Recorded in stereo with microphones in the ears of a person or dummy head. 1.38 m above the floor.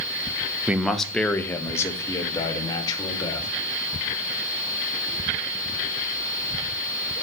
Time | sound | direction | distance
0.7 | a man speaking | 10° right (ahead or behind) | 0.8 m